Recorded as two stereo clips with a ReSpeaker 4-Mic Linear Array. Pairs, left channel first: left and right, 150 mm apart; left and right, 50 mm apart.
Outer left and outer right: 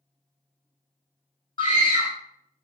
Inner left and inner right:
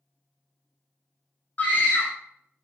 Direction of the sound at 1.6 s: 40° left (ahead or behind).